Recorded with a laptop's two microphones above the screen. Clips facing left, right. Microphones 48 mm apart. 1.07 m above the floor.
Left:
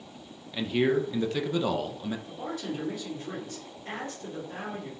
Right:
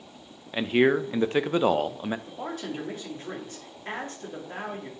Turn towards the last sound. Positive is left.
turn(degrees=-40)  # may be behind; listen again after turning